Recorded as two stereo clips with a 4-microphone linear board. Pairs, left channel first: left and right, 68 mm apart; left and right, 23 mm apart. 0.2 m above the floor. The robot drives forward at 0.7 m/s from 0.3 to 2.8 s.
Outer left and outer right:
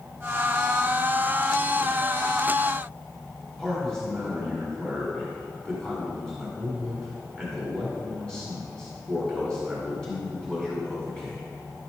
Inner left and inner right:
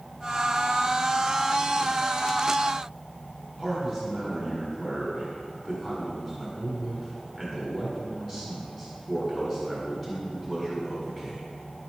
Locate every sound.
3.6 s a man speaking: 10° left (ahead or behind), 1.8 m